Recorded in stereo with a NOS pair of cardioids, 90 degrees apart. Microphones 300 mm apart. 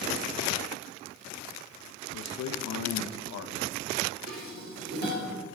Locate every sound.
2.1 s a man speaking: 60° left, 0.9 m
4.3 s dishes clattering: 60° right, 3 m